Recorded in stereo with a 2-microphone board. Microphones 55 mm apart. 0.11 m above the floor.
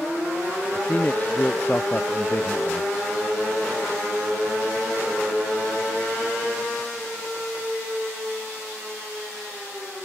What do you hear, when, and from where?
0.8 s a man speaking: 30° left (ahead or behind); by 2.9 s 25° left (ahead or behind)